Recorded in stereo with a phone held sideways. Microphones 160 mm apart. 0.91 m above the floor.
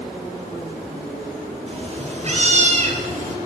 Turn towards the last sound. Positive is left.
turn(degrees=-50)  # may be behind; listen again after turning